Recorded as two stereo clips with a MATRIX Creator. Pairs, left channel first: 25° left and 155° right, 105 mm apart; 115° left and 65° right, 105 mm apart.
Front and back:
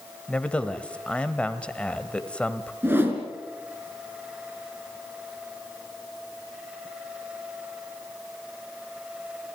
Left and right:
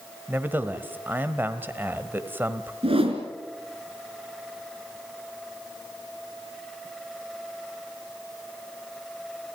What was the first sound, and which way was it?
A man speaking, 35° right.